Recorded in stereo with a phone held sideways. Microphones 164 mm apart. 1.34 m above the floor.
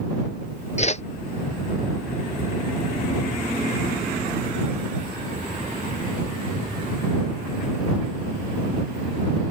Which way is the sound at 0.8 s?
40° left (ahead or behind).